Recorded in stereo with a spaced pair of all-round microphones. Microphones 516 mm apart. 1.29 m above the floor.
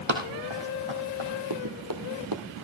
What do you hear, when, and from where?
0.1 s running footsteps: 60° right (ahead or behind), 2.5 m; by 1.3 s 65° right (ahead or behind), 3.5 m
1.5 s running footsteps: 40° right (ahead or behind), 1.7 m